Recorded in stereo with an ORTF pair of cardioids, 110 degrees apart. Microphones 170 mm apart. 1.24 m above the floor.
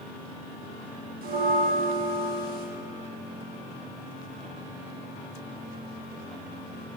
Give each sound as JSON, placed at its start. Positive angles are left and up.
{"t": 1.2, "sound": "a bell", "azimuth_deg": -65, "distance_m": 1.6}